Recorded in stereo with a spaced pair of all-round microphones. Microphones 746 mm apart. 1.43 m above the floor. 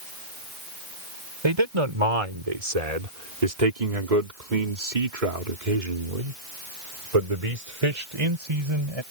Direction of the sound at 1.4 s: 40° right (ahead or behind).